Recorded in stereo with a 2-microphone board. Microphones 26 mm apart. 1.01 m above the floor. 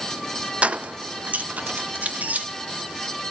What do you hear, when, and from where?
0.6 s keys jangling: 50° right (ahead or behind), 0.5 m; by 2.5 s 80° right, 1.4 m